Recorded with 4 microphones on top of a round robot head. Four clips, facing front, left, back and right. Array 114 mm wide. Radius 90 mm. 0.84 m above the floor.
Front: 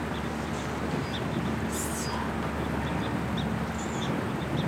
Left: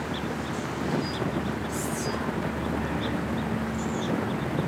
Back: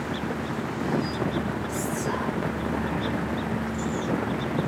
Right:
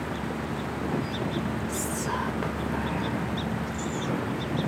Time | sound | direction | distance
1.7 | whispering | 140° right | 1.9 m